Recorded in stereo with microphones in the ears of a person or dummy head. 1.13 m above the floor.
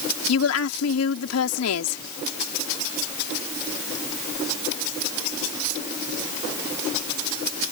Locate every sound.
0.3 s a woman speaking: 85° left